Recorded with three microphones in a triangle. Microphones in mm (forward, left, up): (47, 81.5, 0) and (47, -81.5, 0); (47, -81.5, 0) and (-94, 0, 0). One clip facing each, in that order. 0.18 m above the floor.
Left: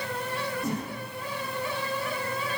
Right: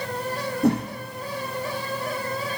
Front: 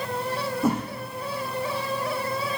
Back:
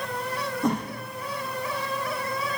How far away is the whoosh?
About 3 m.